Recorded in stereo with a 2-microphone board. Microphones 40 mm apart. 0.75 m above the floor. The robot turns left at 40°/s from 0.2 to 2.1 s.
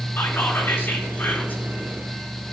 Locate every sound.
0.2 s whispering: 110° left, 2.5 m; by 1.6 s 50° left, 2.5 m